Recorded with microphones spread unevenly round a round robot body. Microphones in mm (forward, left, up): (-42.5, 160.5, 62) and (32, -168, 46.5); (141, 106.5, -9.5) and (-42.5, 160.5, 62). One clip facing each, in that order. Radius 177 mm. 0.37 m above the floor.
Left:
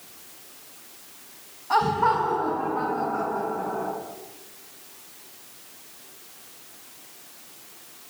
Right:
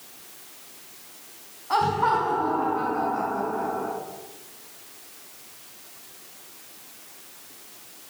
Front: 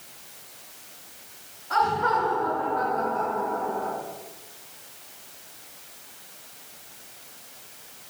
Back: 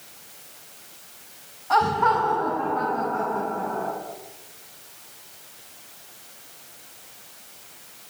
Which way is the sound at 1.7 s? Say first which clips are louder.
Left 1 dB, back 3 dB; 175° right.